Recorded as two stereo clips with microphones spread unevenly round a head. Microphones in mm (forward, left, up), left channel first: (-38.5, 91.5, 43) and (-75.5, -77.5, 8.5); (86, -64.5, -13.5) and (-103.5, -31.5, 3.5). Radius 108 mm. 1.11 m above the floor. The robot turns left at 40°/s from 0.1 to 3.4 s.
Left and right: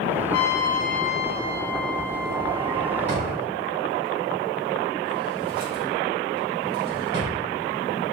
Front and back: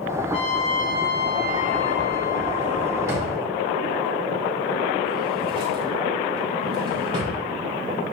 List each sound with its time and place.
0.3 s a trumpet: 50° left, 0.8 m; by 3.2 s 65° right, 0.8 m
3.1 s a drawer: 115° right, 3 m; by 7.3 s 130° right, 3 m